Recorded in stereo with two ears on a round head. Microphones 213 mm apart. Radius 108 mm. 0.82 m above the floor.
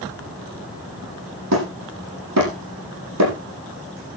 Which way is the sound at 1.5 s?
85° right.